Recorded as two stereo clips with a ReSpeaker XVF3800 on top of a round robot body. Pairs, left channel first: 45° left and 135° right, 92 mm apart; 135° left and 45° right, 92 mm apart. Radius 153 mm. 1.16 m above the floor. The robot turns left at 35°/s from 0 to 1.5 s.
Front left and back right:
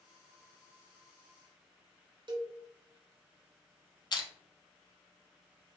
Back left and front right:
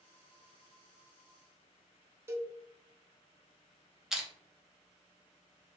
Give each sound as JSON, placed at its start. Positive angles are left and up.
{"t": 2.3, "sound": "a cowbell", "azimuth_deg": -105, "distance_m": 0.7}
{"t": 4.1, "sound": "crushing", "azimuth_deg": 35, "distance_m": 0.8}